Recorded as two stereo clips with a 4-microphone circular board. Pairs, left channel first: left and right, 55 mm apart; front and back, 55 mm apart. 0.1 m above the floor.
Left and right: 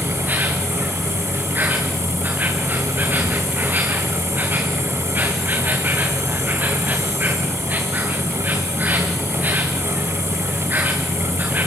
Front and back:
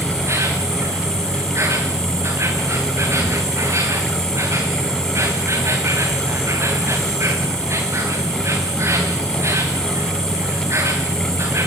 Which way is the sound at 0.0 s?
145° right.